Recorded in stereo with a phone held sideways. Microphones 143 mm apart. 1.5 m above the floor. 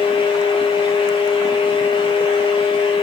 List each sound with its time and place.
0.0 s a fan: 35° left (ahead or behind), 3 m